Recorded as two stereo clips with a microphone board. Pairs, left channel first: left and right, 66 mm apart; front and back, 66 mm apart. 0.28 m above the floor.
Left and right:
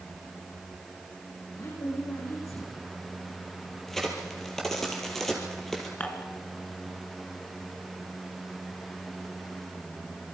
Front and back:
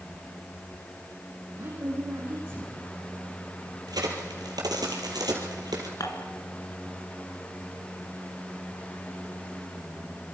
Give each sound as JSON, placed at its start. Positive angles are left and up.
{"t": 1.6, "sound": "a woman speaking", "azimuth_deg": 130, "distance_m": 9.0}
{"t": 3.9, "sound": "a crack", "azimuth_deg": 175, "distance_m": 3.5}
{"t": 6.0, "sound": "dishes clattering", "azimuth_deg": 20, "distance_m": 2.5}